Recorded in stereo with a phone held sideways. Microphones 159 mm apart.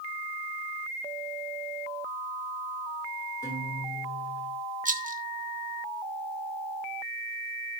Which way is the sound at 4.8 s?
55° right (ahead or behind).